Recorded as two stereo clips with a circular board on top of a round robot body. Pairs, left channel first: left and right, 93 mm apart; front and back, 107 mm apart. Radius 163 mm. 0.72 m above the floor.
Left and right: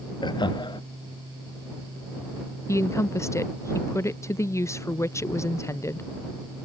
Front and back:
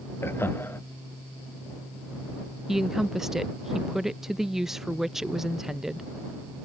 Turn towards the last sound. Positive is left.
turn(degrees=95)